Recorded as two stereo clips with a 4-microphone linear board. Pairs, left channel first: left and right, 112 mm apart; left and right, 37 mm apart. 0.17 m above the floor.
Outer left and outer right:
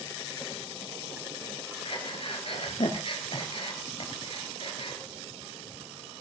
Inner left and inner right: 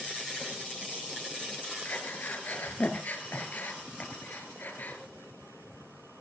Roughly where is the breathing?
Left.